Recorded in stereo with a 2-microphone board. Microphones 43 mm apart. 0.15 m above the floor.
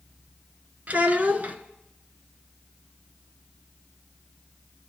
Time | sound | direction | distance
0.9 | a child speaking | 40° right (ahead or behind) | 0.9 m